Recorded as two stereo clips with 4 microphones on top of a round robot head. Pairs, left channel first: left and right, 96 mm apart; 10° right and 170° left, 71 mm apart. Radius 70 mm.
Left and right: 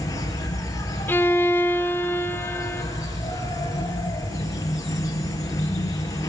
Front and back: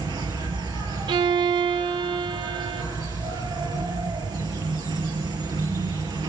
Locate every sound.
0.0 s an insect: 145° left, 3 m
1.1 s a violin: 160° left, 1.0 m